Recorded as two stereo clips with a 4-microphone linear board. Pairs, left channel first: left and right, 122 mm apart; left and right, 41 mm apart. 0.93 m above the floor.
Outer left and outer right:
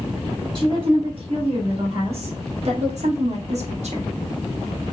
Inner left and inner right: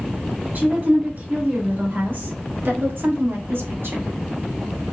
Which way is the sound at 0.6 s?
45° right (ahead or behind).